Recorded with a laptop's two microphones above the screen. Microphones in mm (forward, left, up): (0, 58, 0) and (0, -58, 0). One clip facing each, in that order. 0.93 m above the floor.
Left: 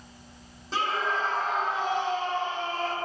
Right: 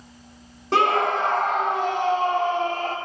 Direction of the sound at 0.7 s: 65° right (ahead or behind).